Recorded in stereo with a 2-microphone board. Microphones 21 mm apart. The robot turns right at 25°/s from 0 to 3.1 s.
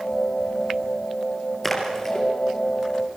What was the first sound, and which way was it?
A splash, 15° left (ahead or behind).